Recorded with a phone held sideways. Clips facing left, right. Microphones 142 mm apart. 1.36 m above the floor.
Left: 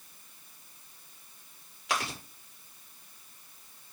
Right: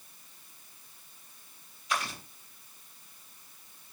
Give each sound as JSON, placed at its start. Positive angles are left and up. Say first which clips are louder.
{"t": 1.9, "sound": "chewing", "louder": "left 1 dB", "side_deg": 80, "distance_m": 7.0}